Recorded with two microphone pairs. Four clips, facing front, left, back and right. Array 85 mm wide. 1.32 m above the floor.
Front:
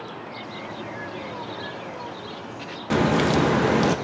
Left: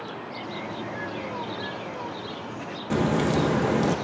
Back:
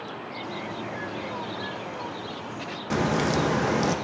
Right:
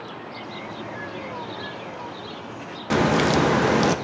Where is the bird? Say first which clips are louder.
Left 2 dB, back 3 dB; 175° left, 1.3 m.